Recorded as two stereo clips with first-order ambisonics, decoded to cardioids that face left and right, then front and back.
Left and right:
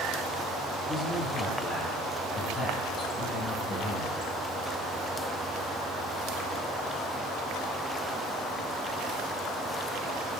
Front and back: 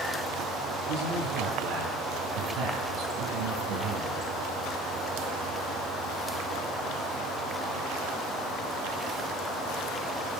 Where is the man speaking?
170° left, 10 m.